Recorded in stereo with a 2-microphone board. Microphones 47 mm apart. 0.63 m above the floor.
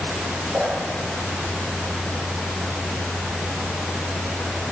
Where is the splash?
35° right (ahead or behind), 9.5 m.